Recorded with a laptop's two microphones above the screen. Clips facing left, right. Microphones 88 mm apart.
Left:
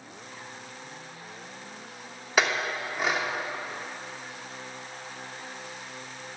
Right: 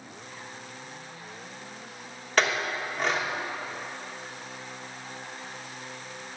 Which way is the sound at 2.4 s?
5° left (ahead or behind).